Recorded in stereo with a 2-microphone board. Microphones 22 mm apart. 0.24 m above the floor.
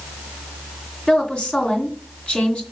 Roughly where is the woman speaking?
Left.